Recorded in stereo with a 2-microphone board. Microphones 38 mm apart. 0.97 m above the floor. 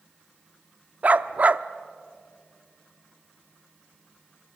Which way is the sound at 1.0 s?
40° right (ahead or behind).